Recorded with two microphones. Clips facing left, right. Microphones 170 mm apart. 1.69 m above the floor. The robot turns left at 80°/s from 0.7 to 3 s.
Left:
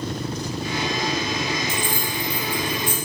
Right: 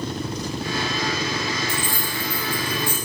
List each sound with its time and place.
1.7 s keys jangling: 15° right (ahead or behind), 4 m; by 3.0 s 80° left, 4 m